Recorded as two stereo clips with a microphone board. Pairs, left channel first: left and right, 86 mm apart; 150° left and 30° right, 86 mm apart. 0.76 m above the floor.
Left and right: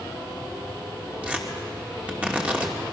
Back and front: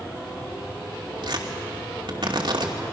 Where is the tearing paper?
20° right, 2.5 m.